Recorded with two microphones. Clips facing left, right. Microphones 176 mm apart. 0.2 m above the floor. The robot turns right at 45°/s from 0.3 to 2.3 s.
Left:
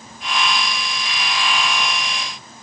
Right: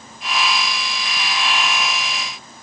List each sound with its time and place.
Only background noise.